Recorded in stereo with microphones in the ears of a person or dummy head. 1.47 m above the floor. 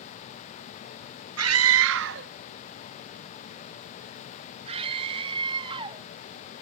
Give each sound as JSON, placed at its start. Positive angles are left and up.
{"t": 1.4, "sound": "a scream", "side_deg": -80}